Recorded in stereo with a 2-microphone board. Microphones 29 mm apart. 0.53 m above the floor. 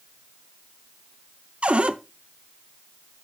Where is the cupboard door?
45° right (ahead or behind), 0.7 m.